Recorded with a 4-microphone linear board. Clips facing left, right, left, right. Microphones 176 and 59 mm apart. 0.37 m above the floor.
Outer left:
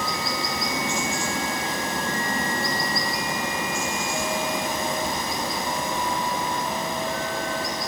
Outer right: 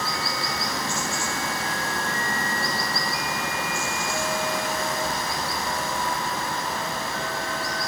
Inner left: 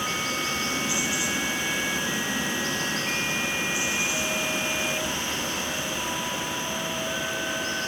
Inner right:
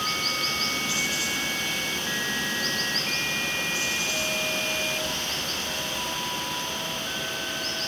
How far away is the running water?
About 0.8 m.